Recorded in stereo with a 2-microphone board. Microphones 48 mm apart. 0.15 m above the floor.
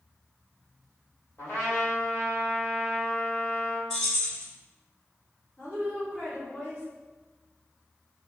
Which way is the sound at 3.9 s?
10° left (ahead or behind).